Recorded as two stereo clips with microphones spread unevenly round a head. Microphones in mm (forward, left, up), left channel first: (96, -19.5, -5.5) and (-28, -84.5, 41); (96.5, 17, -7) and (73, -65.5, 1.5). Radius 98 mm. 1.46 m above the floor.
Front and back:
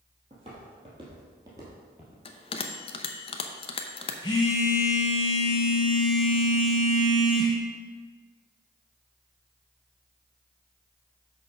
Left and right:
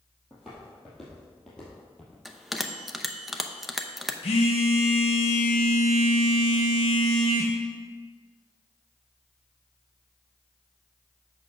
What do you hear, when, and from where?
0.3 s footsteps: 175° left, 2.5 m; by 2.1 s 150° left, 1.9 m
2.2 s a bell: 25° right, 0.7 m
4.2 s a phone buzzing: 100° left, 1.1 m